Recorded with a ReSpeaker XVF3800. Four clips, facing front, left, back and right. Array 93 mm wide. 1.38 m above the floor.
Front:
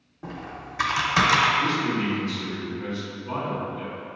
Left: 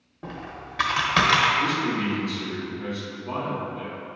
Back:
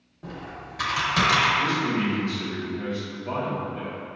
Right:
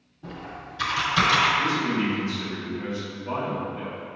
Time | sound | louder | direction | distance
0.2 | typing on a keyboard | left 1 dB, front 1 dB | 70° left | 0.8 m
1.6 | a man speaking | even, even | 160° right | 2.0 m